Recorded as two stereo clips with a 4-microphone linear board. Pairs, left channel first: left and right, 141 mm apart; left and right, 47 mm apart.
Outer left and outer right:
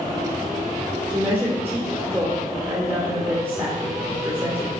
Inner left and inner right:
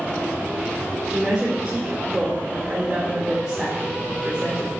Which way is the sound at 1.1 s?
15° right (ahead or behind).